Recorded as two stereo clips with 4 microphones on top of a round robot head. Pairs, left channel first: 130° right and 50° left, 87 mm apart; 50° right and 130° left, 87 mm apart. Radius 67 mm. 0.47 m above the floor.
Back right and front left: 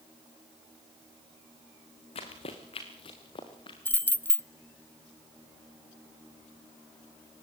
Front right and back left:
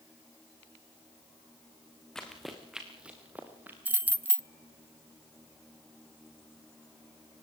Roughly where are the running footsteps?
Behind right.